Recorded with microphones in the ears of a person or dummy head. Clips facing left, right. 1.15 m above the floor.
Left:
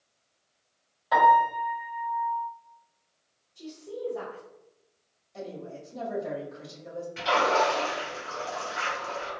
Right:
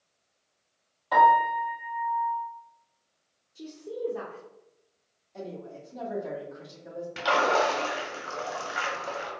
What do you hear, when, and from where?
1.1 s a piano: 10° left (ahead or behind), 1.8 m
3.5 s a woman speaking: 55° right (ahead or behind), 0.8 m
5.3 s a woman speaking: 10° left (ahead or behind), 1.9 m
7.2 s a splash: 70° right (ahead or behind), 1.0 m